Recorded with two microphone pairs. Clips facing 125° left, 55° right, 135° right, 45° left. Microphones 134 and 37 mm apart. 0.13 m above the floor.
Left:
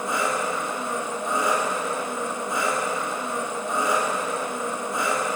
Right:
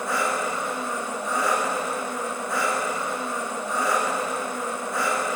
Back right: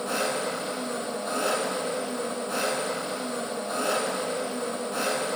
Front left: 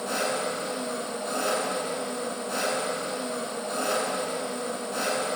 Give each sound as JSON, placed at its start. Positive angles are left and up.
{"t": 0.0, "sound": "an engine running", "azimuth_deg": 145, "distance_m": 0.9}